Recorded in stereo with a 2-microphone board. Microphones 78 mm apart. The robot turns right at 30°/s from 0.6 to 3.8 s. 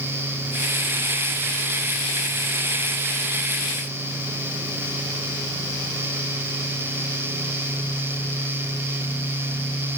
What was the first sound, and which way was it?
Only background noise.